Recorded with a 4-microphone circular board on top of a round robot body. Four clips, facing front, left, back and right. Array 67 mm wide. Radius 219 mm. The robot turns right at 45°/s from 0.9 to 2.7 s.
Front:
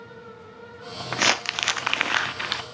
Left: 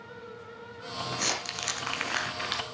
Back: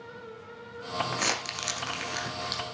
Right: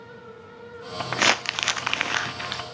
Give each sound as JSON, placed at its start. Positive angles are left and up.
{"t": 1.1, "sound": "crumpling", "azimuth_deg": -65, "distance_m": 0.8}